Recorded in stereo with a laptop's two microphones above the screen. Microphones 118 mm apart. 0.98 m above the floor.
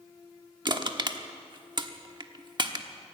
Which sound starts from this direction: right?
Crushing, at 0.7 s.